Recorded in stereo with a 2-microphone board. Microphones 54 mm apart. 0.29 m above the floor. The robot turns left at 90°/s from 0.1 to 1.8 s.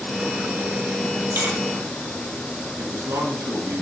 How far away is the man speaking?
About 3.5 m.